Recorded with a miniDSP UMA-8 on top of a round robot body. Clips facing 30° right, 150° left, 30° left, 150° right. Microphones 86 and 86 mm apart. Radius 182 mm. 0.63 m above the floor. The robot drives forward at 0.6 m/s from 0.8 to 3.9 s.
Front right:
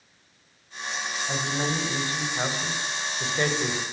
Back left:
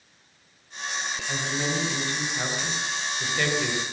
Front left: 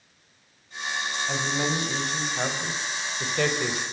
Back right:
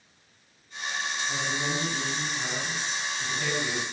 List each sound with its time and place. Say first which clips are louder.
1.3 s a man speaking: front right 1 dB, front left 5 dB; 25° left, 4.5 m; by 3.8 s 35° left, 3 m